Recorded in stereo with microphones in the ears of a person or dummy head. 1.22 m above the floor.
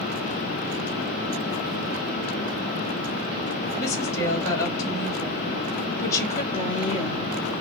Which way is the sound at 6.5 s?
30° left (ahead or behind).